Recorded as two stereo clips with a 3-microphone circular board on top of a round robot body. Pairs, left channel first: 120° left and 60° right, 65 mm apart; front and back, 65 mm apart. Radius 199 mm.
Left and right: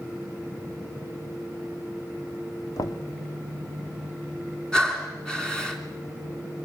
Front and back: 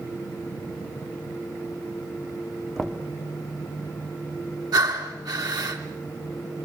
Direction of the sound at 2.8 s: 90° left.